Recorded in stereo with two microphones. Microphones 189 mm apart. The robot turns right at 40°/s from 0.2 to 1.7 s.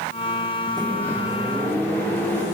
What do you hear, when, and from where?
0.8 s a microwave: 25° right, 2 m; by 2.4 s 10° left, 2 m